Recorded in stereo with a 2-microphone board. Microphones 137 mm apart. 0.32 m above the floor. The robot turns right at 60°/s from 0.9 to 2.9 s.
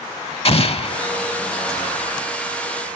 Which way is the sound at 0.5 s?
45° left (ahead or behind).